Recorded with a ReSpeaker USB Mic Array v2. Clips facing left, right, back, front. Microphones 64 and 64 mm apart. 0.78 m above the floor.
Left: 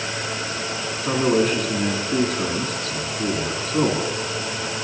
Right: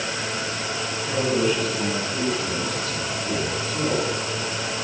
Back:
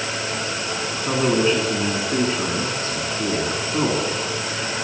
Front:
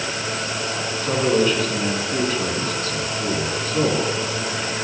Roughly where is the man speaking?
Behind left.